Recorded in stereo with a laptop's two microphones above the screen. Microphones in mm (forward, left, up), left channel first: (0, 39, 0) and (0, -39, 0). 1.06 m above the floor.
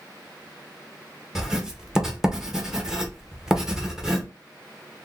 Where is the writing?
5° right (ahead or behind), 0.7 m.